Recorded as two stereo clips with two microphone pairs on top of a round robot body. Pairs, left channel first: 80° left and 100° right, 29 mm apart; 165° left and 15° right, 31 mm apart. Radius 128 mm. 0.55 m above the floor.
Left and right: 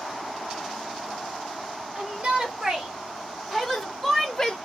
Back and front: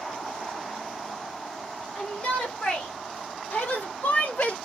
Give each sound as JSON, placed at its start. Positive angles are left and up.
{"t": 1.9, "sound": "a shout", "azimuth_deg": -130, "distance_m": 2.0}